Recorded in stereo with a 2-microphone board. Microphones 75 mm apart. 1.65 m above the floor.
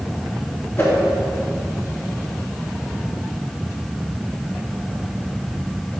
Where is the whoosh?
40° left (ahead or behind), 3.5 m.